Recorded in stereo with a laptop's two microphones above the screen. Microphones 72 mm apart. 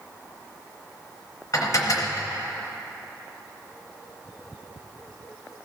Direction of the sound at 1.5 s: 50° left (ahead or behind).